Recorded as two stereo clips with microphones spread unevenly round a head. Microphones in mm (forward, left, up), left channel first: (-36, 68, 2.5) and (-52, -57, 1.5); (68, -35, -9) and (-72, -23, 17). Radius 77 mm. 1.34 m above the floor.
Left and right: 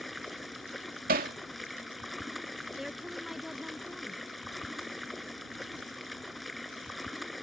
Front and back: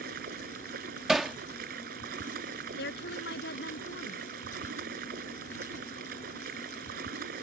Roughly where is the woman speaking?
Ahead.